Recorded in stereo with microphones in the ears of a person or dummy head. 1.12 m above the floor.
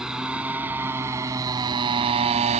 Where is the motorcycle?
5° right (ahead or behind); by 2.6 s 40° right (ahead or behind).